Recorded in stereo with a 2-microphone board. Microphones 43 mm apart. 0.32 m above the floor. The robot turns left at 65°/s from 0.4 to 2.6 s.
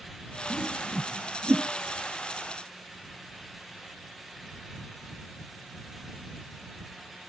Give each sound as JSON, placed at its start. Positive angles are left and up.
{"t": 0.5, "sound": "a whoosh", "side_deg": 25}